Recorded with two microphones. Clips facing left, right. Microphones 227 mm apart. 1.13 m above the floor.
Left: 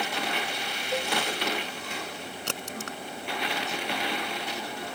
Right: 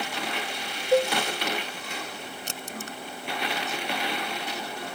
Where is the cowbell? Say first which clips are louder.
Right 10 dB; 50° right (ahead or behind).